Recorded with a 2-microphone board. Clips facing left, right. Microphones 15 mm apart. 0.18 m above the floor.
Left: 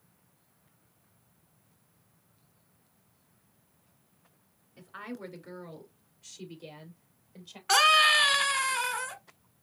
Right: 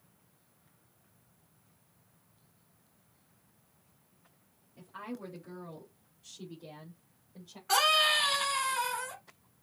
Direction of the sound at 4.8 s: 45° left (ahead or behind).